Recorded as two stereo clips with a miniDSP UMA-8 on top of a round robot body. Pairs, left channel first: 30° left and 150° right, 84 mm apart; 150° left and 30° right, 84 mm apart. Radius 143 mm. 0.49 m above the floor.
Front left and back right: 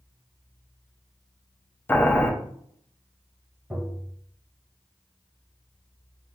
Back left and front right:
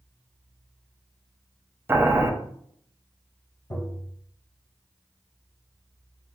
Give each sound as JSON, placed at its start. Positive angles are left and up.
{"t": 1.9, "sound": "boiling", "azimuth_deg": -5, "distance_m": 0.7}
{"t": 3.7, "sound": "tapping", "azimuth_deg": 105, "distance_m": 1.6}